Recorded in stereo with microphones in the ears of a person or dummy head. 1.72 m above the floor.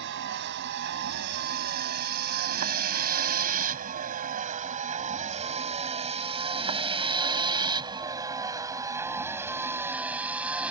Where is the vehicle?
60° right (ahead or behind); by 10.7 s 5° right (ahead or behind).